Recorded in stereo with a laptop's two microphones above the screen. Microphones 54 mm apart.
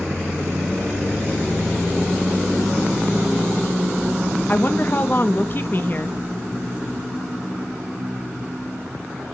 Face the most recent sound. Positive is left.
turn(degrees=40)  # may be behind; listen again after turning